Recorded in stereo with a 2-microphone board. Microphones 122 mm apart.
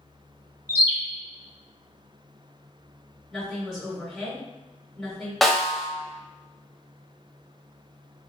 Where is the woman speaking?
5° left (ahead or behind), 1.7 m.